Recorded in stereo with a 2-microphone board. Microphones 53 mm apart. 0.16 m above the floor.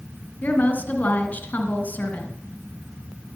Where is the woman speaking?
35° left (ahead or behind), 1.9 m.